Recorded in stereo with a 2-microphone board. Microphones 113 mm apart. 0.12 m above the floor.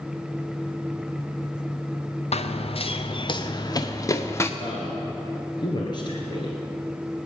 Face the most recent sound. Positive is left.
turn(degrees=40)  # may be behind; listen again after turning